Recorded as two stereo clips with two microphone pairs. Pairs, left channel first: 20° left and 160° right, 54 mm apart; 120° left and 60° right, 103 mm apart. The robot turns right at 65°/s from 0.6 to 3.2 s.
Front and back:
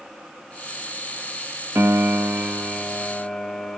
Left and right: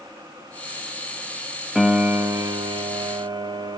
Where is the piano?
145° right, 1.1 m; by 3.8 s 50° right, 1.1 m.